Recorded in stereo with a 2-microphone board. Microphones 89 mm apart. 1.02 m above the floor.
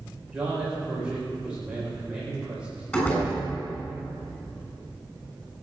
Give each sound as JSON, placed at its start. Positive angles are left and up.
{"t": 0.3, "sound": "a man speaking", "side_deg": -10, "distance_m": 4.0}
{"t": 2.9, "sound": "a door slam", "side_deg": 20, "distance_m": 7.0}